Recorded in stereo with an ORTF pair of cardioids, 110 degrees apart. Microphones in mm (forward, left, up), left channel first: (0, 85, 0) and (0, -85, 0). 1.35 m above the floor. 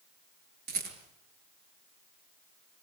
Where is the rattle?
65° right, 6.5 m.